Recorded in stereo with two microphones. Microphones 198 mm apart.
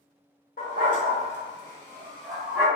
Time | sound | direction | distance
0.6 | a dog barking | 50° left (ahead or behind) | 1.4 m